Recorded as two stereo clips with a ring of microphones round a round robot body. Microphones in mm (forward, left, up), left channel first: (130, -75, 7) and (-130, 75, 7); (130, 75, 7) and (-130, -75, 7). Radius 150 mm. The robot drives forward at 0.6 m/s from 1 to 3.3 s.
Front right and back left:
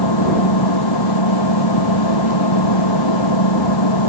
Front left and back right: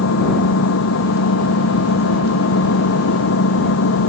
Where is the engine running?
15° right.